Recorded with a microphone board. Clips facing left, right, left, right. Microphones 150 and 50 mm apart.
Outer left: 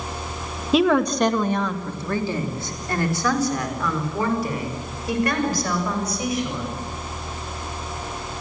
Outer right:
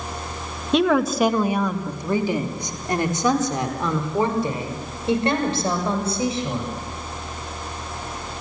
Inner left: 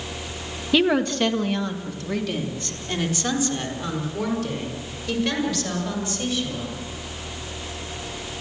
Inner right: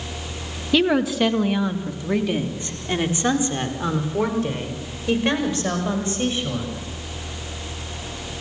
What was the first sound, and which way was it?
A woman speaking, 5° left (ahead or behind).